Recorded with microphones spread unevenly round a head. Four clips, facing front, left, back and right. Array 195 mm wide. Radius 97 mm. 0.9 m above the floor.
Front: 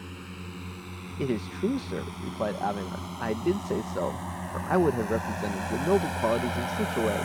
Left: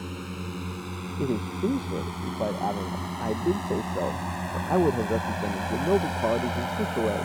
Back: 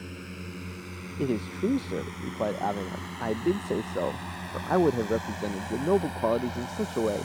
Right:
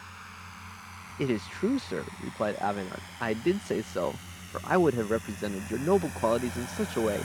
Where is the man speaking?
30° left.